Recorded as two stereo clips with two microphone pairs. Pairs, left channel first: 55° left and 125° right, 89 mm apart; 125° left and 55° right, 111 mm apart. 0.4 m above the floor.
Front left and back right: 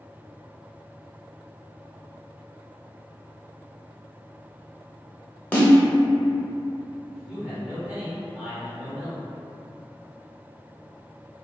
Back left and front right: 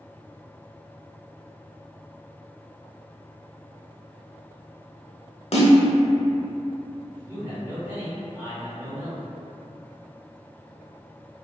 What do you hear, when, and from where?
5.5 s a snare drum: 125° left, 0.8 m
7.1 s a man speaking: 80° right, 1.4 m